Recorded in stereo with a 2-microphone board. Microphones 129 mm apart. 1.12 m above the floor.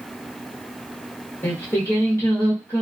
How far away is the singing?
About 1.0 m.